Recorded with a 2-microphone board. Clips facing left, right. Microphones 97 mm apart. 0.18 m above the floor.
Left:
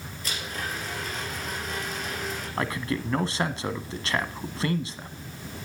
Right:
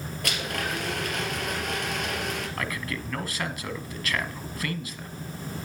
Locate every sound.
0.2 s a blender: 70° right (ahead or behind), 3.5 m
2.6 s a man speaking: 30° left (ahead or behind), 1.1 m